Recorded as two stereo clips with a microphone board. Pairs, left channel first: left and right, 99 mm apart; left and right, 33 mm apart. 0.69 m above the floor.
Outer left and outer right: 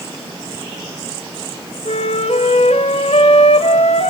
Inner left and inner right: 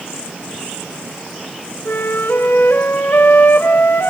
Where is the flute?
75° left (ahead or behind), 3.5 m.